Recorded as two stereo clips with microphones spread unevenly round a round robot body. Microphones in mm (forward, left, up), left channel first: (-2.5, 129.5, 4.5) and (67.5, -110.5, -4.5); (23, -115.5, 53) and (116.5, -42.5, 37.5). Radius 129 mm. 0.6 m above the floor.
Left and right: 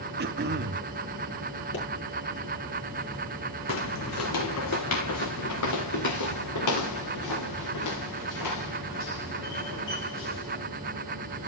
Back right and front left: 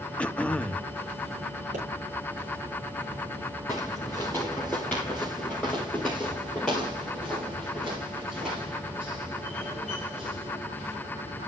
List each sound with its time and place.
0.2 s throat clearing: 60° right, 1.1 m
1.7 s a pop: 65° left, 8.5 m
3.7 s footsteps: 145° left, 1.6 m; by 10.6 s 125° left, 6 m